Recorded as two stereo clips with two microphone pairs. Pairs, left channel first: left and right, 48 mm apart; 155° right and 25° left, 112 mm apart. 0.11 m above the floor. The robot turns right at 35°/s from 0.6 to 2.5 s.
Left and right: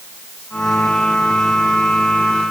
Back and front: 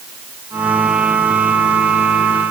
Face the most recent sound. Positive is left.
No sound to turn to.